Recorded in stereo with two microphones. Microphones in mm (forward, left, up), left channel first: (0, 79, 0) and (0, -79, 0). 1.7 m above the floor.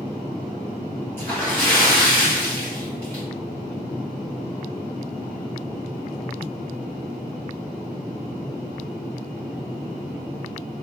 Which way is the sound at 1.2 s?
15° left (ahead or behind).